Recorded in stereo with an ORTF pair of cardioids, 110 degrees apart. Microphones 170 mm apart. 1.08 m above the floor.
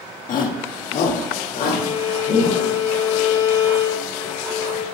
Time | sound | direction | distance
0.3 | a shout | 55° left | 1.4 m
1.7 | a violin | 50° left | 2.5 m